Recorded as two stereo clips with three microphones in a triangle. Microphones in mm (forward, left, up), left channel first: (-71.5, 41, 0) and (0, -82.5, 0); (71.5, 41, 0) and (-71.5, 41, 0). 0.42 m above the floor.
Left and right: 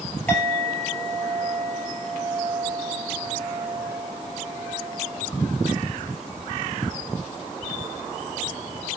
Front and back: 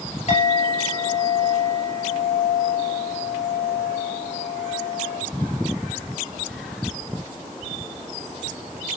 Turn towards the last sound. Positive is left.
turn(degrees=40)